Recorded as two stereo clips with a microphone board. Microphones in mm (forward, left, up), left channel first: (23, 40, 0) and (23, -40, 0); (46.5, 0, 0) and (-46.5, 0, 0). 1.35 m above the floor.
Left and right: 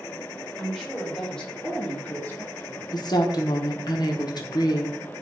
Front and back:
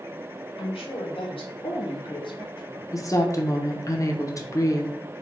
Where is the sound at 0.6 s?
5° left, 1.8 m; by 2.8 s 40° left, 0.7 m.